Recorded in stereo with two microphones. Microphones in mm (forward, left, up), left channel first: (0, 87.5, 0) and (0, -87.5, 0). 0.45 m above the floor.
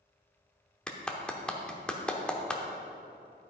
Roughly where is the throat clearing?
I don't hear throat clearing.